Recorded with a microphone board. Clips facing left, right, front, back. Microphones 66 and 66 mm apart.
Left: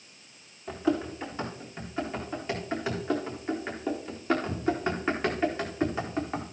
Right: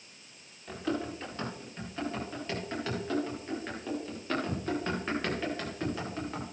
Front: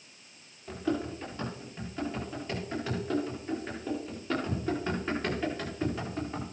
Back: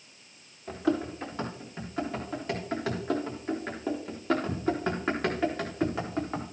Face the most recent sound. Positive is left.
turn(degrees=155)